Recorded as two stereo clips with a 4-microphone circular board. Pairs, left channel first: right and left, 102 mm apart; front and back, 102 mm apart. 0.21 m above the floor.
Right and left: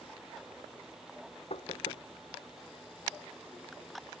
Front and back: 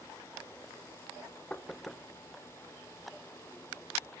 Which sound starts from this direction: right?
Knocking, at 1.5 s.